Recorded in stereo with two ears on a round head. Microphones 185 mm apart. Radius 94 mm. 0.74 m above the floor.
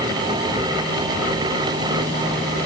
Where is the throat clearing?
No throat clearing in this recording.